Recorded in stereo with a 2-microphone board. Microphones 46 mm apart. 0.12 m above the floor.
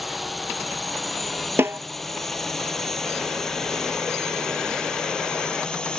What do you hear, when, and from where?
0.0 s a drone: centre (ahead or behind); by 6.0 s 20° left (ahead or behind)
1.6 s a snare drum: 60° right (ahead or behind)